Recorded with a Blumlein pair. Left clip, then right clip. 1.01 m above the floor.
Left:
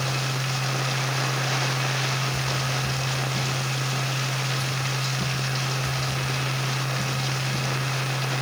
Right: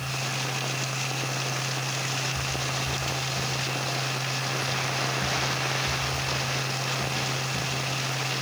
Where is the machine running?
45° left, 9 m.